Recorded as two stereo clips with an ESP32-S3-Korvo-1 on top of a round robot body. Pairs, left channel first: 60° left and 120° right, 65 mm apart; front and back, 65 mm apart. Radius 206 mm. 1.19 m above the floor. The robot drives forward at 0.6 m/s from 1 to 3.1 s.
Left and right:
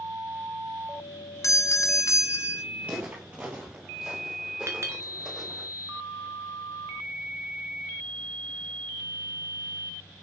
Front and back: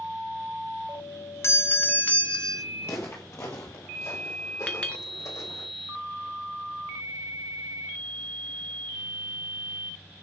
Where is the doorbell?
35° left, 1.2 m; by 2.6 s 85° left, 1.0 m.